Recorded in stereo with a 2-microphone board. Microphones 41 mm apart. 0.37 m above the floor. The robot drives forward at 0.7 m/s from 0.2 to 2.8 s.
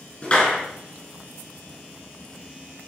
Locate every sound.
0.2 s a clap: 25° left (ahead or behind), 3.5 m